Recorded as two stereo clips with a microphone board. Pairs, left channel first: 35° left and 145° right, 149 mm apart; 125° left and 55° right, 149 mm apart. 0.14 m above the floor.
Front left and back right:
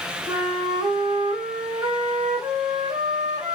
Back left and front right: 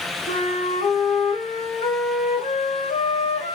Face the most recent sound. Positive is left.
turn(degrees=150)